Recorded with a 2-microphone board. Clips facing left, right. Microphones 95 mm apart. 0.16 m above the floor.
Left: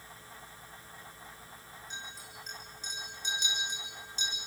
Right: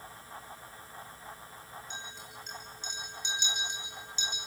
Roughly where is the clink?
Left.